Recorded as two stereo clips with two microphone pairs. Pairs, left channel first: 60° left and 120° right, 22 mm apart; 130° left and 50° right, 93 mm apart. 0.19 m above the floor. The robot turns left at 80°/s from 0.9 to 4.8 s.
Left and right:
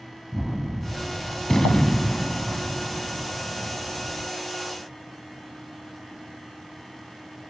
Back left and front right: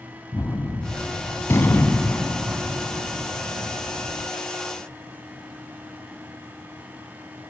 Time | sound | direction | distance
0.3 | a gunshot | 150° left | 1.6 m